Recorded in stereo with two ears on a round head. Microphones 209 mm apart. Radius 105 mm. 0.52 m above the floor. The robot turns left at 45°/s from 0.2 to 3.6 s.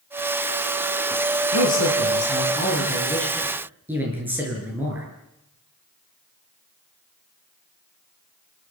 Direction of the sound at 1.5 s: 85° left.